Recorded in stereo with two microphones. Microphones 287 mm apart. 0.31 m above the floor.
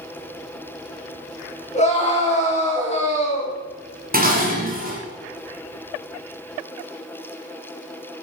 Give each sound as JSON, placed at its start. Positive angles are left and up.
{"t": 1.7, "sound": "a scream", "side_deg": 25, "distance_m": 3.5}
{"t": 4.1, "sound": "dishes clattering", "side_deg": -30, "distance_m": 1.9}